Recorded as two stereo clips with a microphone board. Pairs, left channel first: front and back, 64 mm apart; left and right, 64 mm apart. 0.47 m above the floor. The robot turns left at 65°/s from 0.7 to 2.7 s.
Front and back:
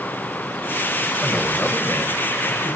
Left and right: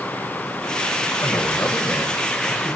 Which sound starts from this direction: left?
A man speaking, at 1.2 s.